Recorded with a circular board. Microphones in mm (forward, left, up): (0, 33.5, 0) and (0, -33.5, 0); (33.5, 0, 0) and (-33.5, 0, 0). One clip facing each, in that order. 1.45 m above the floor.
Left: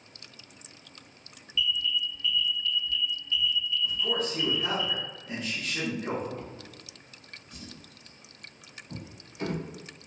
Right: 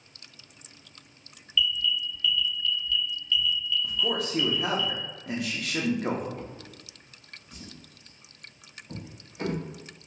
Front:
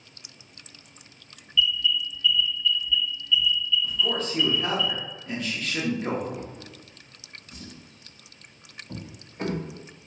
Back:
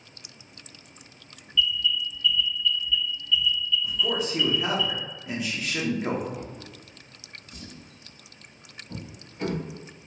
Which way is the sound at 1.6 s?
145° left.